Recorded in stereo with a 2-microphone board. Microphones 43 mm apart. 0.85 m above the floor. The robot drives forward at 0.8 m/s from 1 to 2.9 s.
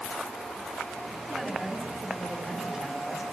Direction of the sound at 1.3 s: 10° right (ahead or behind).